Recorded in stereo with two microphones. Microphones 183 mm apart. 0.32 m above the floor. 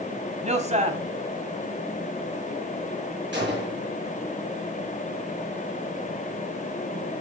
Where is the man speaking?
40° right (ahead or behind), 2.5 m.